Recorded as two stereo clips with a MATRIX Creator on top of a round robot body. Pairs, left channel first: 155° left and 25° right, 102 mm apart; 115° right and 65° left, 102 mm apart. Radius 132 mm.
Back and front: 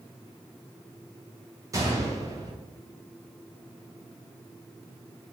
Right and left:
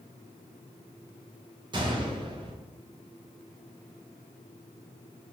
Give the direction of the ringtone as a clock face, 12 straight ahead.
I don't hear a ringtone.